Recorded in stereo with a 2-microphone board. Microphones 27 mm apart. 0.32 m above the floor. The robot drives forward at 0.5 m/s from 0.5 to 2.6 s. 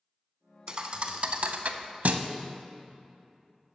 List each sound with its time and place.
0.7 s a thud: 40° right (ahead or behind), 0.8 m; by 2.2 s 65° right (ahead or behind), 0.6 m